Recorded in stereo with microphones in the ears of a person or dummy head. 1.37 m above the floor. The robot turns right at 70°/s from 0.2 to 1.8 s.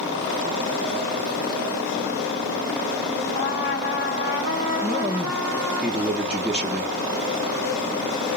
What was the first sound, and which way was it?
A trumpet, 25° left (ahead or behind).